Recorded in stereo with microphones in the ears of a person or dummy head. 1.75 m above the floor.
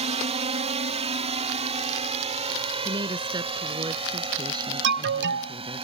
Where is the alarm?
60° right (ahead or behind).